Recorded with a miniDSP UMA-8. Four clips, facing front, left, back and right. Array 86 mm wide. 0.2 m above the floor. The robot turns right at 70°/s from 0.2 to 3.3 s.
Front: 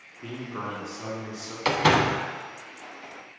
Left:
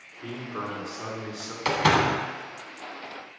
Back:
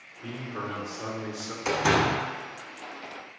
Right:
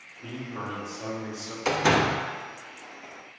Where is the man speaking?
25° left, 2.5 m; by 1.6 s 120° left, 2.5 m.